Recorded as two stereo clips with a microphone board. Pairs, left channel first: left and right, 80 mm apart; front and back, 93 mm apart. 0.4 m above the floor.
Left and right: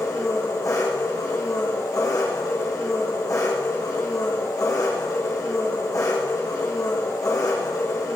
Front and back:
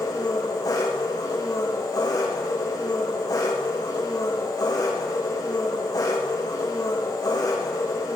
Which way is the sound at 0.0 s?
45° left.